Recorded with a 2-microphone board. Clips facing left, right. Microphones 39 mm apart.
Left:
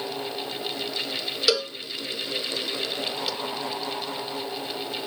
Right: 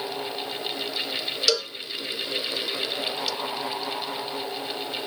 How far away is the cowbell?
About 0.7 m.